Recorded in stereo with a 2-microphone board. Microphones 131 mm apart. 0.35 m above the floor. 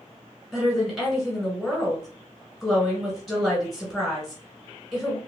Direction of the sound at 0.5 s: Centre (ahead or behind).